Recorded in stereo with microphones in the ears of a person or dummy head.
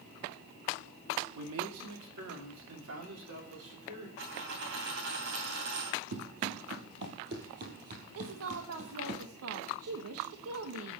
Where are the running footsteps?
60° right (ahead or behind), 2.5 m; by 9.2 s 30° right (ahead or behind), 2.5 m.